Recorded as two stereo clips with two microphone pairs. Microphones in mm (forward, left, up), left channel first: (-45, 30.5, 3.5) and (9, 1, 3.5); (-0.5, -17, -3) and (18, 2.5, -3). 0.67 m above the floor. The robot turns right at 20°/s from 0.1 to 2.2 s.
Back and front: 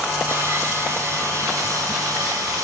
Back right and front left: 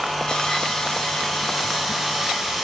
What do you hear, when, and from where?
0.3 s sawing: 70° right, 4 m; by 2.6 s 35° right, 4 m